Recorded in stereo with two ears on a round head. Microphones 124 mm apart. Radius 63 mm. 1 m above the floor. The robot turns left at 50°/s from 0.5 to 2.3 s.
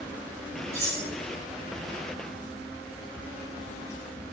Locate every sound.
0.7 s cutlery clinking: 20° right (ahead or behind), 1.2 m; by 1.0 s 35° right (ahead or behind), 1.2 m